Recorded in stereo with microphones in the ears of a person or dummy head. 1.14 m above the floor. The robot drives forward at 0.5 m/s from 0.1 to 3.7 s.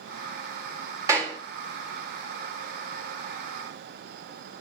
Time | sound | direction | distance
1.1 | a clap | 15° right (ahead or behind) | 1.5 m